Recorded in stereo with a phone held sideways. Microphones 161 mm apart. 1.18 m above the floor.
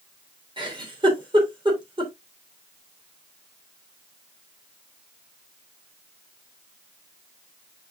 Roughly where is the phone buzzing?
I don't hear a phone buzzing.